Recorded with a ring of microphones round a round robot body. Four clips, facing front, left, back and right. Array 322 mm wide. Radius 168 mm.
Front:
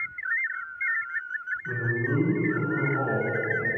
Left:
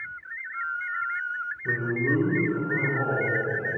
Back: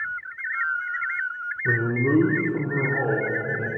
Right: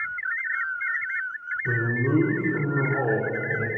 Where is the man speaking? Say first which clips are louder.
Right 1 dB, back 7 dB; 175° right, 1.6 m; by 3.7 s 110° right, 1.9 m.